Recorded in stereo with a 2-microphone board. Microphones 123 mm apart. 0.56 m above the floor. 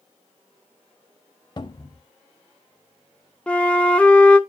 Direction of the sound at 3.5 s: 10° left (ahead or behind).